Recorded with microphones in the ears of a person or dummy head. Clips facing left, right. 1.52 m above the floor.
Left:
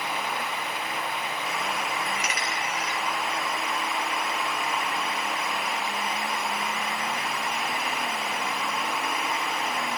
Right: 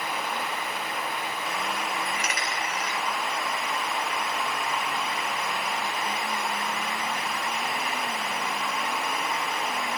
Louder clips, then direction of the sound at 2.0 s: Even; 40° right (ahead or behind).